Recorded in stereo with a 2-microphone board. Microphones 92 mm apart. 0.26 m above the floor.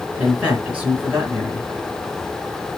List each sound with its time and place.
0.2 s a man speaking: 15° right (ahead or behind), 3 m